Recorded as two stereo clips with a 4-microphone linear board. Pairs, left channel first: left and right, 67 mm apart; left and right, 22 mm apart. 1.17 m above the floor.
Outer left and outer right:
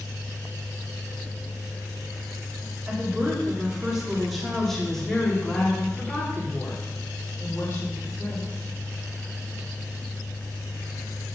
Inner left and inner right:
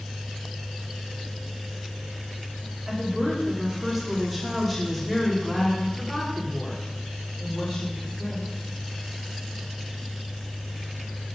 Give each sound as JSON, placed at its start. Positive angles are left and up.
{"t": 2.9, "sound": "a woman speaking", "side_deg": -20, "distance_m": 3.0}